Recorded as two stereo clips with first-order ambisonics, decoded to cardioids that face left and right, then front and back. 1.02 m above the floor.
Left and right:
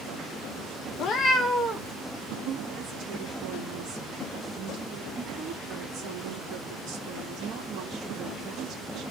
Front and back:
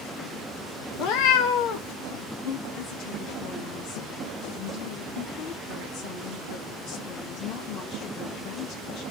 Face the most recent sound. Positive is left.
turn(degrees=-30)